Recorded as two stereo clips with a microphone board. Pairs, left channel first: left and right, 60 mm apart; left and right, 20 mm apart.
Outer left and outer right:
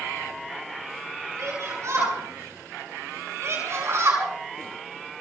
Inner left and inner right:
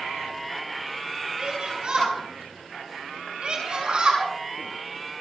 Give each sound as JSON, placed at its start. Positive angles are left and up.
{"t": 1.4, "sound": "a shout", "side_deg": -55, "distance_m": 9.5}